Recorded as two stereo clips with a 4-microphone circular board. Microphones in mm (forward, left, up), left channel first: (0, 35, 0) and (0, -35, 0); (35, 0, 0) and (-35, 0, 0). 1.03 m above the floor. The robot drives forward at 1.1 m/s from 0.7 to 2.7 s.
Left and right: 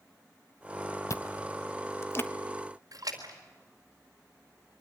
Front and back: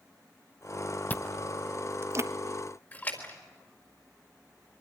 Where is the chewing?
60° left, 0.9 m; by 2.3 s 145° left, 1.3 m.